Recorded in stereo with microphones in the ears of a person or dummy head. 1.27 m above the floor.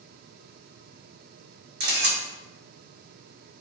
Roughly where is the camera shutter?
Right.